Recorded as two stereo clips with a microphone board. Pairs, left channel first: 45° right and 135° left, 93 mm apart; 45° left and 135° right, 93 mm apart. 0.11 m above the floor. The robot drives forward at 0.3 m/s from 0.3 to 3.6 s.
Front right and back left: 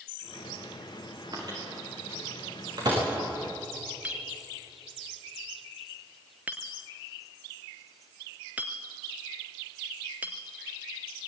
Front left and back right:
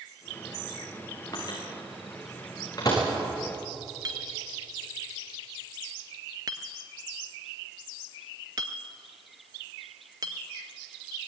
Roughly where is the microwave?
Left.